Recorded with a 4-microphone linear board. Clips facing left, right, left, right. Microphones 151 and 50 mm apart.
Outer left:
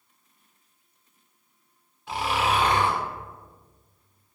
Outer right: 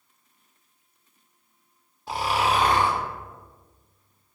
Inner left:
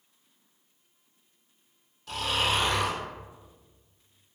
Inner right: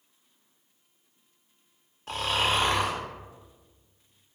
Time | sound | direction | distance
2.1 | snoring | 35° right (ahead or behind) | 0.6 m